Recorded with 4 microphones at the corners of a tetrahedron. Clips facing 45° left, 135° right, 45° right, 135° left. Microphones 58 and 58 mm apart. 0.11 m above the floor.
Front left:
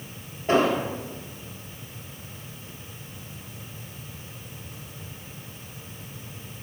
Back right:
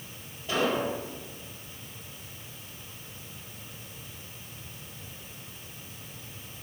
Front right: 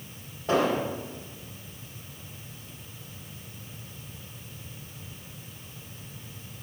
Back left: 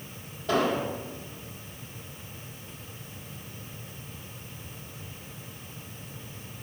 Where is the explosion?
10° left, 2 m.